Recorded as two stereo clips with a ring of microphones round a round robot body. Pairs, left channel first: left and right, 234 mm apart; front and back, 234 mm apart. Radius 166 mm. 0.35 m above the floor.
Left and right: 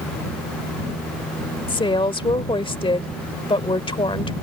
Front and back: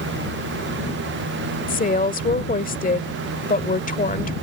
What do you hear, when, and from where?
1.7 s a woman speaking: 30° left